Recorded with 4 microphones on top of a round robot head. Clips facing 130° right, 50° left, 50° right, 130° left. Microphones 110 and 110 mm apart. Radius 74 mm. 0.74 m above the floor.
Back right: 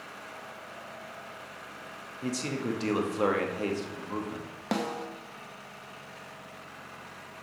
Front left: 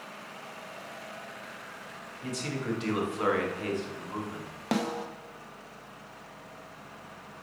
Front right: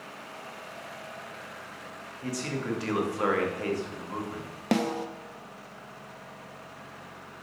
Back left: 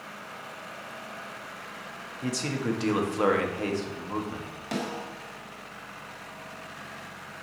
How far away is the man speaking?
About 1.3 m.